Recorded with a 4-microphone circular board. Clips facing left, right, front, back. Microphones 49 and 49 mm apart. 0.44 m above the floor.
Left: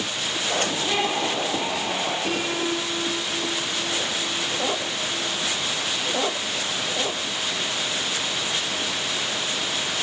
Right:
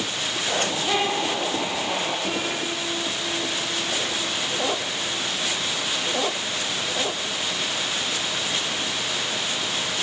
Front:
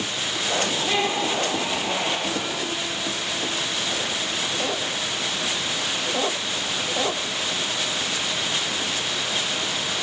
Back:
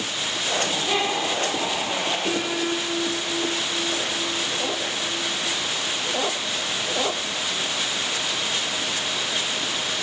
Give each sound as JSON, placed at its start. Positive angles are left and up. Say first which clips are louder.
{"t": 0.5, "sound": "laughter", "louder": "right 1 dB, even", "azimuth_deg": 55, "distance_m": 6.0}
{"t": 2.2, "sound": "a piano", "louder": "left 2 dB, back 3 dB", "azimuth_deg": 140, "distance_m": 4.0}